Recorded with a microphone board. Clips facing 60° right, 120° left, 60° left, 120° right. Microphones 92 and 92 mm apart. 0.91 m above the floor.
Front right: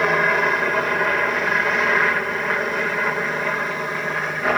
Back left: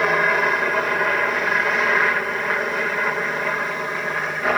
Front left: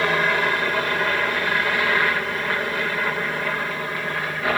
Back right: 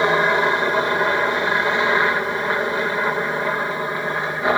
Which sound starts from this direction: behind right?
A helicopter, at 0.0 s.